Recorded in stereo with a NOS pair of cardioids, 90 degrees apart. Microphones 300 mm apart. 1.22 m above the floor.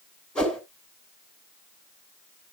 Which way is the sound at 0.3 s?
5° left.